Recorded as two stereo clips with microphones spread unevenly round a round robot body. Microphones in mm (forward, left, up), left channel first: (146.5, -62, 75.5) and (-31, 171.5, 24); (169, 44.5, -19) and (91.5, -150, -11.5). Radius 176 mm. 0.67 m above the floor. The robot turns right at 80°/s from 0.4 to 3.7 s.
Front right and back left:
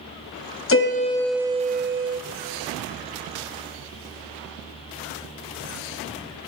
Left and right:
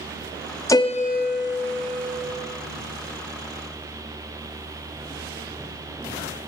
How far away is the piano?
About 0.7 m.